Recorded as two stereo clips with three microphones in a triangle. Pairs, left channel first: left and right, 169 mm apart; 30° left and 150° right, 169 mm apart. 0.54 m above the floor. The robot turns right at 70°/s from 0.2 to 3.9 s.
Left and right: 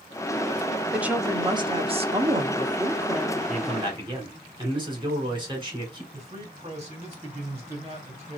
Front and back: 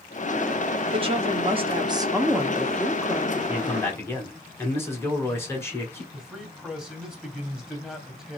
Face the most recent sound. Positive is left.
turn(degrees=-60)